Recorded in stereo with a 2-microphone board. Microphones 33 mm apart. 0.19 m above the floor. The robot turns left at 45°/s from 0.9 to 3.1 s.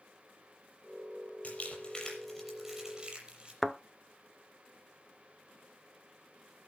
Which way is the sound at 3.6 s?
10° left (ahead or behind).